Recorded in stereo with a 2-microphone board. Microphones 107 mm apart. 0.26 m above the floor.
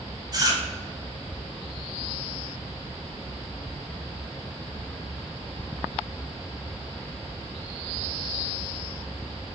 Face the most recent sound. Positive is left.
turn(degrees=-40)  # may be behind; listen again after turning